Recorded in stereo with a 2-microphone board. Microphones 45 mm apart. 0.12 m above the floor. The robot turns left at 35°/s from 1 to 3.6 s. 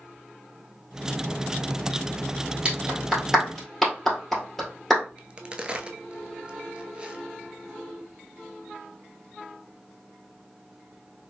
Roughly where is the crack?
Right.